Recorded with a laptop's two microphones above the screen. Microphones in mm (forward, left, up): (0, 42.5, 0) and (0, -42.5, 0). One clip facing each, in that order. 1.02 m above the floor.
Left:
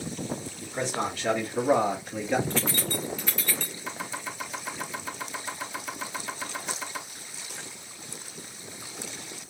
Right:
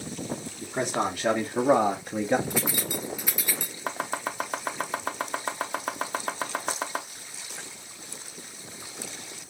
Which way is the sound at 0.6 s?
55° right (ahead or behind).